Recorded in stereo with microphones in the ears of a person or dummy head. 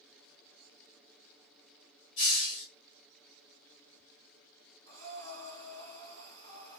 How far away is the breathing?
About 1.9 m.